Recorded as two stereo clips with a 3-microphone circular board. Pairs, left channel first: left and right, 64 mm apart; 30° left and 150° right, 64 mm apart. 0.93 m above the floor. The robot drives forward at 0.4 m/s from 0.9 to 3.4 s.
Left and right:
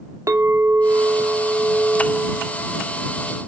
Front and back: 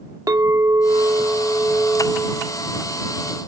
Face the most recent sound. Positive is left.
turn(degrees=-160)